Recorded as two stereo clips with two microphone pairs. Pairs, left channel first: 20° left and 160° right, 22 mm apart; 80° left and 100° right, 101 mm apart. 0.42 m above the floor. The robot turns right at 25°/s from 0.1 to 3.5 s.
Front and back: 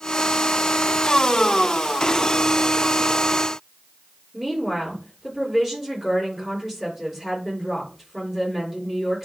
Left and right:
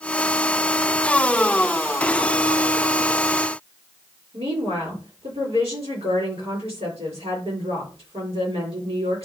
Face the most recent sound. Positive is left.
turn(degrees=-90)